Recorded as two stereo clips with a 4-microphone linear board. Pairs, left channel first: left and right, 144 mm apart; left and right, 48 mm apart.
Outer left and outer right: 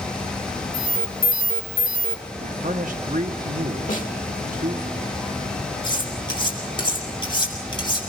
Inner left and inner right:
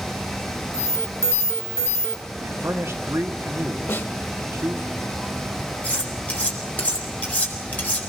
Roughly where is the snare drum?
Left.